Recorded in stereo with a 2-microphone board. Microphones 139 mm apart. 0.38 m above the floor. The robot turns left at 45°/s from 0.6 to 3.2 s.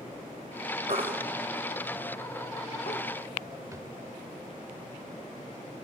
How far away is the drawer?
About 0.5 m.